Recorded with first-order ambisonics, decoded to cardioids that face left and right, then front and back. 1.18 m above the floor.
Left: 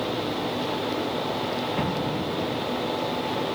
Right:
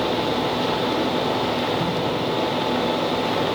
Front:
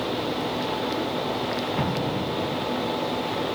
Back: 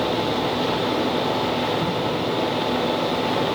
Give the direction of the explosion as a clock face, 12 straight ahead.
11 o'clock.